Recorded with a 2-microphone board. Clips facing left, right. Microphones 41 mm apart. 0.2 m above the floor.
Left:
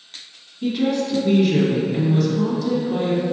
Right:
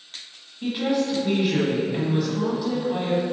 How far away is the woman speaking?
About 1.0 m.